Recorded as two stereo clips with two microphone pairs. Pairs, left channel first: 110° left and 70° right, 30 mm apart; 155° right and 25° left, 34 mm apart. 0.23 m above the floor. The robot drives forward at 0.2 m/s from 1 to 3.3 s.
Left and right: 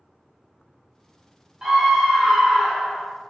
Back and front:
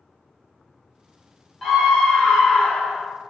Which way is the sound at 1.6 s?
90° right.